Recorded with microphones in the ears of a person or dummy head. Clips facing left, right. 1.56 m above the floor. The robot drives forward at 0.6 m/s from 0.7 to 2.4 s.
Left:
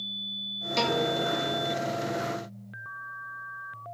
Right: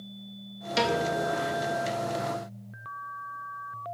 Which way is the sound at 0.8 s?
10° right (ahead or behind).